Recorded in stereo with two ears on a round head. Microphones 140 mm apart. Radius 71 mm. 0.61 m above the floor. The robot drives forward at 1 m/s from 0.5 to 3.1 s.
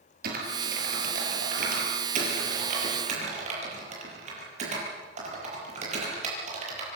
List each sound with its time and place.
0.2 s typing on a keyboard: 65° right (ahead or behind), 6.5 m; by 6.8 s 50° right (ahead or behind), 8 m